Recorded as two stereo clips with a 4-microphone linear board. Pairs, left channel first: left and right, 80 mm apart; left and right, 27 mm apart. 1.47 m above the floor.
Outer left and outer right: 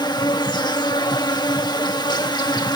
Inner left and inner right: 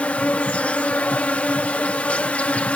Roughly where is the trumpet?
No trumpet in this recording.